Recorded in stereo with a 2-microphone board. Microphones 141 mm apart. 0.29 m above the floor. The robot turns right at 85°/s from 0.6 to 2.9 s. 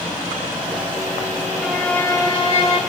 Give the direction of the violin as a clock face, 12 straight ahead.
12 o'clock.